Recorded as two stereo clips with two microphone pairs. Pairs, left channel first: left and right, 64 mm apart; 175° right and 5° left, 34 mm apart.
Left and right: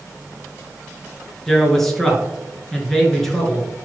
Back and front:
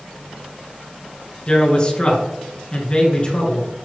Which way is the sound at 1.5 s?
175° left.